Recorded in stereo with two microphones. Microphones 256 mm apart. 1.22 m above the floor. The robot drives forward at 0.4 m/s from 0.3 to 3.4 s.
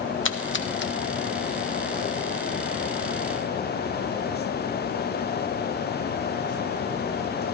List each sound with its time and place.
0.2 s a splash: 55° left (ahead or behind), 0.6 m; by 0.9 s 45° left (ahead or behind), 0.7 m